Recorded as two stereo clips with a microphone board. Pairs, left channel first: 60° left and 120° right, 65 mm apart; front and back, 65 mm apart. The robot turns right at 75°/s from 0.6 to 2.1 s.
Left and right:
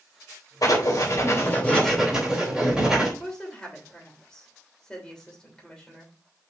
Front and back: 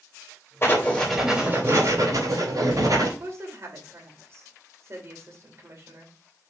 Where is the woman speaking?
135° left, 3 m.